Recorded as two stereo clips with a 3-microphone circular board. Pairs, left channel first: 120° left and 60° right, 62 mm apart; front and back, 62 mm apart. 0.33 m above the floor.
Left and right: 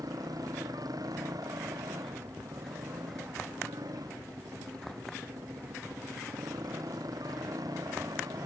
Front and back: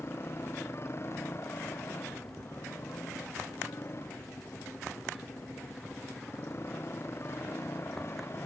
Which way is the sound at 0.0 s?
50° right.